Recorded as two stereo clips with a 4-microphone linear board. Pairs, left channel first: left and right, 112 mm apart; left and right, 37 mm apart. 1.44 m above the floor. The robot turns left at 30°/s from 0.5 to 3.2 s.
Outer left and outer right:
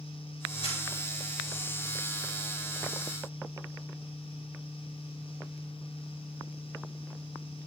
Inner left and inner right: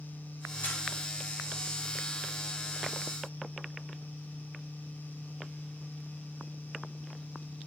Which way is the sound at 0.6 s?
55° left (ahead or behind).